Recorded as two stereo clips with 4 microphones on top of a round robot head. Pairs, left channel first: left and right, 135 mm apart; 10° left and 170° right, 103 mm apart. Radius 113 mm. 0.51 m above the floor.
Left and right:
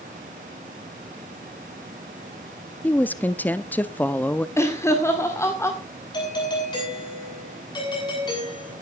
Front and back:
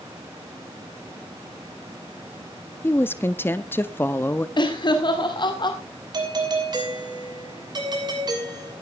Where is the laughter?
25° left, 2 m.